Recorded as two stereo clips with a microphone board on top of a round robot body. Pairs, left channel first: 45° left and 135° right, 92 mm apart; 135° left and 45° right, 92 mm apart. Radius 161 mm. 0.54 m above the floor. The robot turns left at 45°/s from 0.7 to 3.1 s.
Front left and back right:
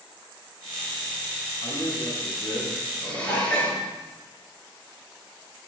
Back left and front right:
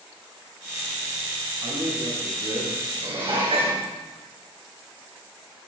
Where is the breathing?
I don't hear breathing.